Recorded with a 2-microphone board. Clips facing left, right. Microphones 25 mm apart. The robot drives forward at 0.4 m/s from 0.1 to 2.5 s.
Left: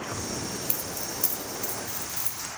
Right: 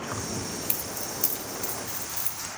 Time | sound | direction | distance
0.1 | keys jangling | 25° right (ahead or behind) | 0.6 m